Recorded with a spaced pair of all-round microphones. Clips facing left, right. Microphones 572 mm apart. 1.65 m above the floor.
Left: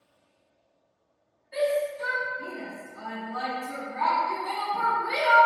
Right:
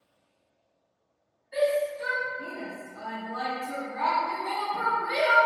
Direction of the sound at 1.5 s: 30° left (ahead or behind).